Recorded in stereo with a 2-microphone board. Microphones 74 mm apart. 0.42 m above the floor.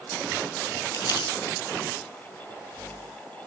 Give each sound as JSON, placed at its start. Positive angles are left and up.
{"t": 0.9, "sound": "crumpling", "side_deg": 65, "distance_m": 6.0}